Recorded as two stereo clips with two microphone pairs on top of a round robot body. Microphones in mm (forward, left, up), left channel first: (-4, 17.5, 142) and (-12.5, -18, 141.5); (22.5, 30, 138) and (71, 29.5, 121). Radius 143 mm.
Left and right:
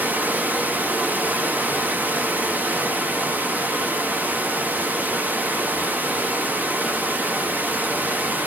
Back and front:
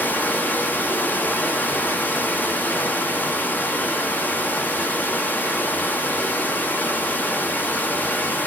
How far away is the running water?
About 1.2 m.